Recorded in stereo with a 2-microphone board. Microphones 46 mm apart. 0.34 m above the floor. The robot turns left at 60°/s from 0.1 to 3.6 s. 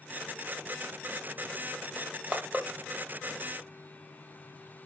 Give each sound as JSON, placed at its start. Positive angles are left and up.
{"t": 2.0, "sound": "crushing", "side_deg": -45, "distance_m": 0.8}